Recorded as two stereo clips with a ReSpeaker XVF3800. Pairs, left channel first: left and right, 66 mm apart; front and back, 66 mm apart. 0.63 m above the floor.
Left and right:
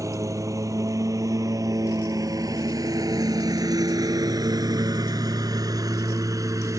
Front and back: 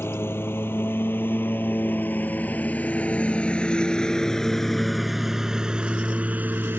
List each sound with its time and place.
0.0 s a lawn mower: 55° right; by 6.8 s 125° right